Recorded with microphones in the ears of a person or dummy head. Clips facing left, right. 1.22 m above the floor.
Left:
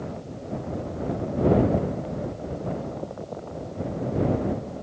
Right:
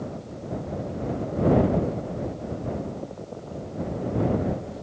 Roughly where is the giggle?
I don't hear a giggle.